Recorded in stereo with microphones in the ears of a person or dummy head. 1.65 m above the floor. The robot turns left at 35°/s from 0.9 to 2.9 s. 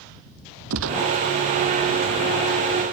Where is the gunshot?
75° right (ahead or behind); by 1.1 s 65° right (ahead or behind).